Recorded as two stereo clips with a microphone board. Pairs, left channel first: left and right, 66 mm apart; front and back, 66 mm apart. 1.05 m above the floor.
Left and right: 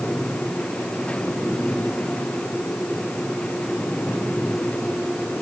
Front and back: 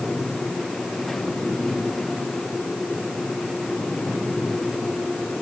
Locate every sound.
Only background noise.